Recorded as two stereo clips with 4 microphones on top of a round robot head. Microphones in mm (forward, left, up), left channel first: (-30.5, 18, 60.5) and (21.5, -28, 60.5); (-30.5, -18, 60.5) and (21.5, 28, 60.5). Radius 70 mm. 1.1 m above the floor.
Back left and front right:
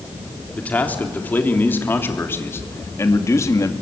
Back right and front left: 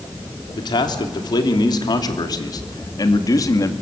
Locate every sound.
0.6 s a man speaking: 155° right, 3.5 m; by 3.7 s 175° right, 2.5 m